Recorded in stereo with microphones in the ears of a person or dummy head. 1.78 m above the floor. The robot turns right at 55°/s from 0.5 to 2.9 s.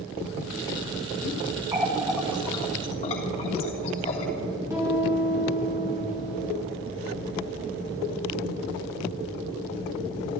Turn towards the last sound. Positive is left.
turn(degrees=-15)  # may be behind; listen again after turning